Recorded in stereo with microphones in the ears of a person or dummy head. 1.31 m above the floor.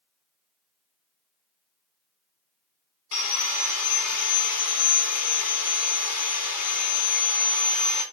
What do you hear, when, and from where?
3.1 s sawing: 65° left (ahead or behind), 1.9 m